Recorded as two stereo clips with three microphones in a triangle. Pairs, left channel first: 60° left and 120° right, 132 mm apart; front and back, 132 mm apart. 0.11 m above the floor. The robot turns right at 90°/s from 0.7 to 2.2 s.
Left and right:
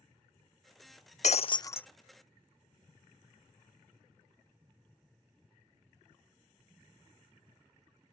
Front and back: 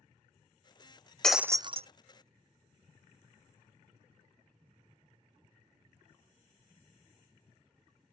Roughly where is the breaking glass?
Left.